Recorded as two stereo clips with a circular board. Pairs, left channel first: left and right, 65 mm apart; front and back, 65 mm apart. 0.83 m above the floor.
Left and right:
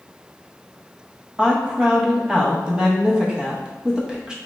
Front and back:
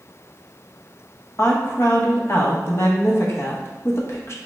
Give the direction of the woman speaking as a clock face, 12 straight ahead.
1 o'clock.